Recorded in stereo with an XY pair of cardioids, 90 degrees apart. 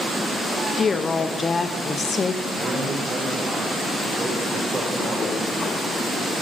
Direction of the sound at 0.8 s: 40° left.